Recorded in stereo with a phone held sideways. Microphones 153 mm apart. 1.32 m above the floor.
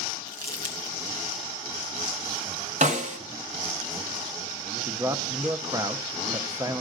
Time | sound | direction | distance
0.3 | crumpling | 20° left (ahead or behind) | 2.5 m
2.8 | a snare drum | 50° right (ahead or behind) | 1.2 m
4.9 | a man speaking | 20° right (ahead or behind) | 0.8 m